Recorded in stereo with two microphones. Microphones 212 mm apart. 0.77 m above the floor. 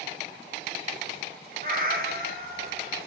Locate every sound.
1.6 s a cat meowing: 45° right (ahead or behind), 3.5 m